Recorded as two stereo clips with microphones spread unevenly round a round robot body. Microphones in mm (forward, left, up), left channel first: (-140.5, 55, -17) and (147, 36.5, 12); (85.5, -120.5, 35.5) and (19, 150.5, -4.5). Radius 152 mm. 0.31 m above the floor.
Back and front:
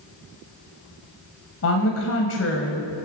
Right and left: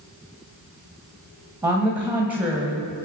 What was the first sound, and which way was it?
A woman speaking, straight behind.